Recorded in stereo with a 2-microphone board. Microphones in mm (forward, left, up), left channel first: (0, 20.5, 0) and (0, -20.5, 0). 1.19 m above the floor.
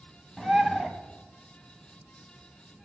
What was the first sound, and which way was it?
A bird, 5° left (ahead or behind).